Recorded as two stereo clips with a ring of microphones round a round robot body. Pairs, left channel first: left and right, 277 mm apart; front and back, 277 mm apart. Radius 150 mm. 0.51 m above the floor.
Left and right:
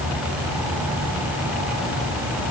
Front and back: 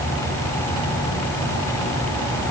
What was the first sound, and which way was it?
Only background noise.